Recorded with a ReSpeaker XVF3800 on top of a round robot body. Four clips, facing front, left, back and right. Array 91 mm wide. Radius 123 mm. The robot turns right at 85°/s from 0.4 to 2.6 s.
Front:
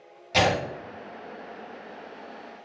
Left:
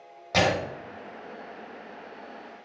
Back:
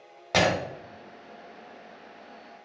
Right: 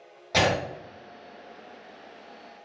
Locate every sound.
0.3 s breaking glass: 175° left, 1.4 m; by 0.6 s 175° right, 1.4 m